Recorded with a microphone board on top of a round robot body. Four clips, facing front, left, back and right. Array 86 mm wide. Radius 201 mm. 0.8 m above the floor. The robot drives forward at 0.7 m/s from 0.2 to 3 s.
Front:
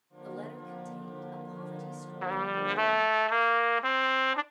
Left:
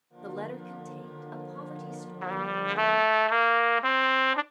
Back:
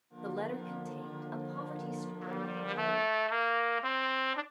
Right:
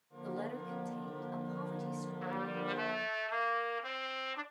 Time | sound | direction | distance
0.2 | a woman speaking | 125° left | 3 m
2.2 | a trumpet | 40° left | 1.1 m